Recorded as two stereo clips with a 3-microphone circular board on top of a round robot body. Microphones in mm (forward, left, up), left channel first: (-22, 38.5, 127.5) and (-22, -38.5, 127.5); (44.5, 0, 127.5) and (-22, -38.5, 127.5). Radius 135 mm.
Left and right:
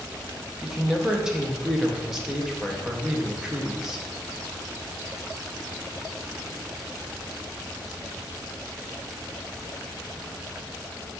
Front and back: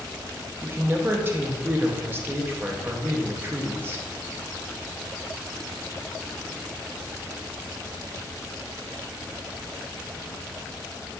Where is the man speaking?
165° right, 0.8 m.